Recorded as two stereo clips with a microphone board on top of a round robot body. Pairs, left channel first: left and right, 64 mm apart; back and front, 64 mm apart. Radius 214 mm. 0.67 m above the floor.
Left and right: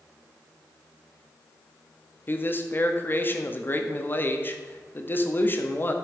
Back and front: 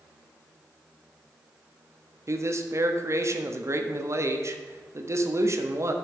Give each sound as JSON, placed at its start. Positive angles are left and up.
{"t": 2.3, "sound": "a man speaking", "azimuth_deg": 35, "distance_m": 1.5}